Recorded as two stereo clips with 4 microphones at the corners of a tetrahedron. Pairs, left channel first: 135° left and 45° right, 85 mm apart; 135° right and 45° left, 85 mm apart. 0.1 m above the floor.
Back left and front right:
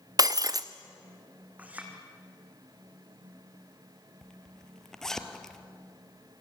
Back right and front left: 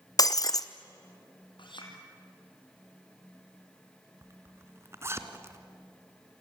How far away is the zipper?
About 1.6 m.